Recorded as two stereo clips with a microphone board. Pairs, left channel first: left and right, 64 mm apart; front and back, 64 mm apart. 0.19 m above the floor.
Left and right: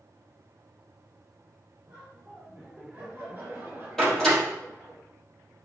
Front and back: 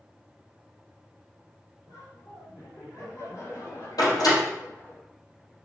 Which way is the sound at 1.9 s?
15° right.